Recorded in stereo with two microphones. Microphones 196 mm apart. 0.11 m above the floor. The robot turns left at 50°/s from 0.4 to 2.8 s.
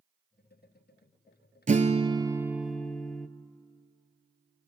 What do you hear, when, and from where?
1.7 s a guitar: 130° right, 0.7 m; by 3.3 s 175° left, 0.7 m